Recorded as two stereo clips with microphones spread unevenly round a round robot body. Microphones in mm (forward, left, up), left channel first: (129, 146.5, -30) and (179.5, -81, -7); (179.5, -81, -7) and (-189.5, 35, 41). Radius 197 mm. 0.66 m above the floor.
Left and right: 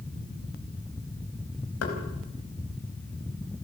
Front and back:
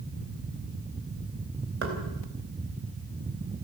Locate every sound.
1.8 s knocking: 100° left, 4 m